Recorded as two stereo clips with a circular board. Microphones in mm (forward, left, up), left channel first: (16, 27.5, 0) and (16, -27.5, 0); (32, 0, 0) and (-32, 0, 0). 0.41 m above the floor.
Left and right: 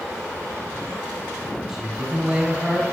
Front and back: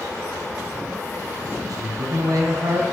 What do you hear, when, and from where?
1.7 s a man speaking: 170° right, 3.5 m